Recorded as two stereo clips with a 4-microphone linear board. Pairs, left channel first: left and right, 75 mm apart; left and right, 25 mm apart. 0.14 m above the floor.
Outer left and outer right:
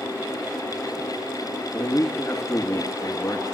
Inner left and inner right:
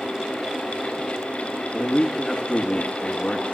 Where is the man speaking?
40° left (ahead or behind), 1.7 m.